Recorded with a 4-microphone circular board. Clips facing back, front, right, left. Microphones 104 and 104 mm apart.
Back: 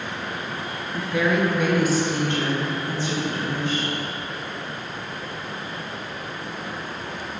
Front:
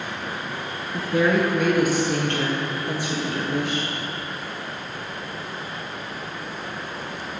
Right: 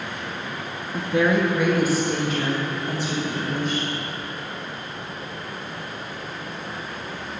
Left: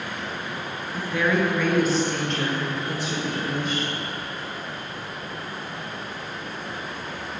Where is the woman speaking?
45° right, 1.3 m; by 3.9 s straight ahead, 4 m.